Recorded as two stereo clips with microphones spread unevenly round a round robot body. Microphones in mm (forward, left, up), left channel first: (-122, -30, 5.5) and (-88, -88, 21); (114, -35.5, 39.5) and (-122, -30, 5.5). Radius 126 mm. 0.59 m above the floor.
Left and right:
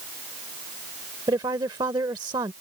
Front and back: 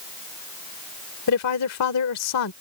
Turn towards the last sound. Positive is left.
turn(degrees=-10)